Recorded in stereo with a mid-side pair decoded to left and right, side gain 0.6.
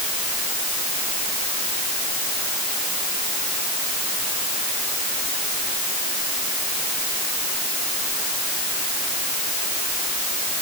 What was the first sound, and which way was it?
Only background noise.